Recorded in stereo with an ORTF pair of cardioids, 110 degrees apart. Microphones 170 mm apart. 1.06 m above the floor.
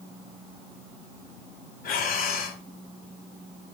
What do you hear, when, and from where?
1.8 s breathing: 60° left, 2.5 m